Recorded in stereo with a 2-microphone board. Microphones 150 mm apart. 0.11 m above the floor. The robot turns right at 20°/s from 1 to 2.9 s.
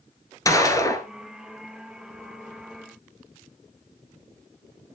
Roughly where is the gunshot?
Left.